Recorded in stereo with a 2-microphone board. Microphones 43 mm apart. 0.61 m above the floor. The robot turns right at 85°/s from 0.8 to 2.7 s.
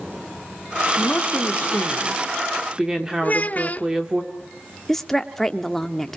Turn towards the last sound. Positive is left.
turn(degrees=5)  # may be behind; listen again after turning